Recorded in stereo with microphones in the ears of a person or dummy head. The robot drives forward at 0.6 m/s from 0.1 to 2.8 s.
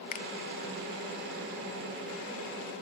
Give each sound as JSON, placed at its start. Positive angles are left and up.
{"t": 0.1, "sound": "a finger snap", "side_deg": 55}